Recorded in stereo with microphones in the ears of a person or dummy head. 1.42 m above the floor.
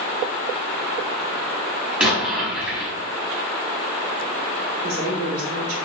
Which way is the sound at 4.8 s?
80° right.